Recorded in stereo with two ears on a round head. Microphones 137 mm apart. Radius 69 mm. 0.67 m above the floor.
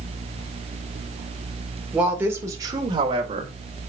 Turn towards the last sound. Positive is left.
turn(degrees=-40)  # may be behind; listen again after turning